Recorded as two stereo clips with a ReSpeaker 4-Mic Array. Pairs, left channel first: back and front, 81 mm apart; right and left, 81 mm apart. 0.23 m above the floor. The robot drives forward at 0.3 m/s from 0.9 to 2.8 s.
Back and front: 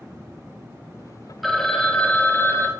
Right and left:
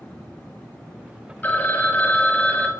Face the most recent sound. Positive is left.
turn(degrees=-150)